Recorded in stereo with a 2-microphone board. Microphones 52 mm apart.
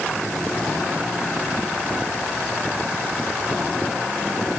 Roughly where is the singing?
No singing in this recording.